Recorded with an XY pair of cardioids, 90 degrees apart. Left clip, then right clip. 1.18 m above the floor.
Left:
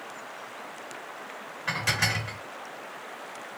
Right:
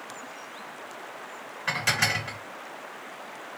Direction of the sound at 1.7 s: 20° right.